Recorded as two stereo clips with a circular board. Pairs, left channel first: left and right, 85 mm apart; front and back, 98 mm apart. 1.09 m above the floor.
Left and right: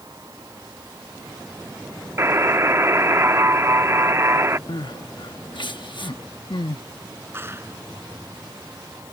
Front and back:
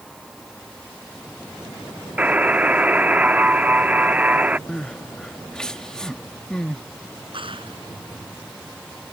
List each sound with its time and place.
2.2 s a buzzer: 115° right
4.7 s crying: 80° left
7.3 s a clap: 150° right